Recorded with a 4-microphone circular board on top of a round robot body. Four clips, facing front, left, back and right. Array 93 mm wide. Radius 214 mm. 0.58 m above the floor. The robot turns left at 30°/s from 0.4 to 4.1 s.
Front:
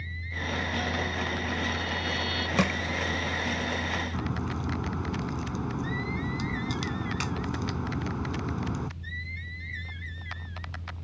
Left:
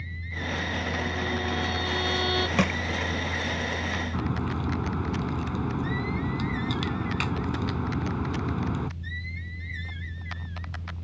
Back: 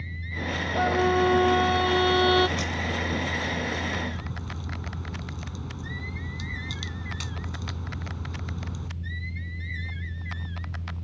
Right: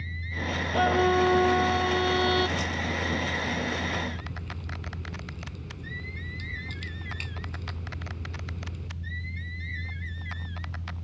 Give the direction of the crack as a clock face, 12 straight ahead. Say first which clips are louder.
Left 10 dB, front 5 dB; 10 o'clock.